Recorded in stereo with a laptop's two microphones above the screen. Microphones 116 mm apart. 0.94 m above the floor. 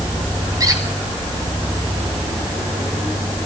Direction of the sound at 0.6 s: 30° right (ahead or behind).